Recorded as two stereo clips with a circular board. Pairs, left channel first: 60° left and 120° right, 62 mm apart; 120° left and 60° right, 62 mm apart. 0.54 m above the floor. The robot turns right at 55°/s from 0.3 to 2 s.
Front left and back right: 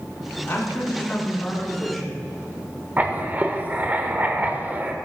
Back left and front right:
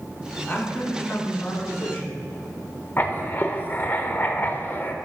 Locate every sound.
0.5 s a man speaking: 70° left, 1.6 m; by 2.1 s 155° left, 1.6 m
3.0 s writing: straight behind, 0.6 m